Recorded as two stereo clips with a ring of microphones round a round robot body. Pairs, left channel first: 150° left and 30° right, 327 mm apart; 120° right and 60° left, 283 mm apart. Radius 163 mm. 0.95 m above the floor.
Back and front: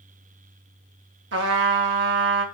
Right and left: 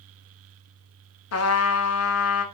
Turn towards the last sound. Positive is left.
turn(degrees=-85)